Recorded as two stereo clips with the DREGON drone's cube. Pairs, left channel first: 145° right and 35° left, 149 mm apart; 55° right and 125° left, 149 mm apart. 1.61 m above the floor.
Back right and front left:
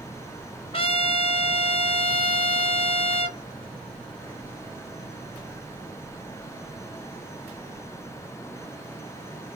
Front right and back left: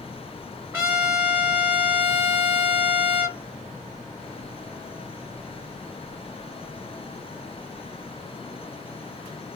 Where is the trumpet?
165° right, 2 m.